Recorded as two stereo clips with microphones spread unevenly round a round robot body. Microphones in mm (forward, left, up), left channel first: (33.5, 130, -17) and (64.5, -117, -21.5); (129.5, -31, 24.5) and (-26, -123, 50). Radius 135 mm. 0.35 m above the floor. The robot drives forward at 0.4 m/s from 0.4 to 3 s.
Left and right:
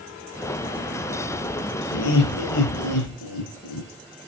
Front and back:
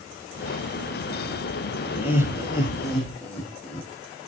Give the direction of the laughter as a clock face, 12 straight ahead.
9 o'clock.